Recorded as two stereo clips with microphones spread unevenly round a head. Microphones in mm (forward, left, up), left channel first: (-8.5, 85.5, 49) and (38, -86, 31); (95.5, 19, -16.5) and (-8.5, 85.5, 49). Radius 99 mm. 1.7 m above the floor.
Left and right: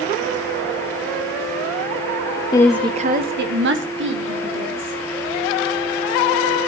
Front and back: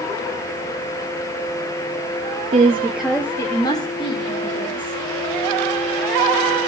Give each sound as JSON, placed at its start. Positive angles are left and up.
{"t": 2.5, "sound": "a woman speaking", "azimuth_deg": 170, "distance_m": 0.6}